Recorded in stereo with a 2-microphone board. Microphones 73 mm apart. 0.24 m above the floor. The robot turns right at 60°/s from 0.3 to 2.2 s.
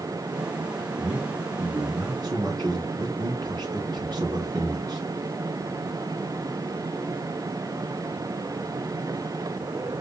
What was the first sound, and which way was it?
A man speaking, 10° right (ahead or behind).